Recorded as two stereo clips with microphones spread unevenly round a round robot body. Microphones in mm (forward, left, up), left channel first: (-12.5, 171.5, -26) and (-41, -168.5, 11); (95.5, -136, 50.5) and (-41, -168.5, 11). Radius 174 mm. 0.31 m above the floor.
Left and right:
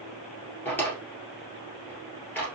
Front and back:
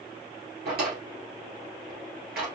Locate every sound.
0.7 s a drawer: 170° left, 1.7 m